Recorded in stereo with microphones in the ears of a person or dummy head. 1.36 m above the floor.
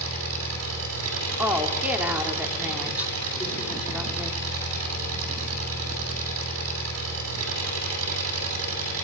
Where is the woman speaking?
10° right (ahead or behind), 3.5 m.